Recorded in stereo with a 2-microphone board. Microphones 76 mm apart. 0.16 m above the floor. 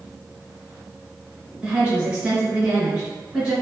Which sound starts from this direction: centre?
A woman speaking, at 1.6 s.